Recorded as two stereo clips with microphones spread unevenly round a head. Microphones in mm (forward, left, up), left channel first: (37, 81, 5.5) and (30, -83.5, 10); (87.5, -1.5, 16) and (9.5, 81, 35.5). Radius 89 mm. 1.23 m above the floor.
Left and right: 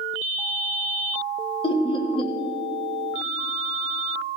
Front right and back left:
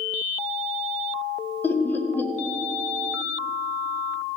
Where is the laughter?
30° left, 1.4 m.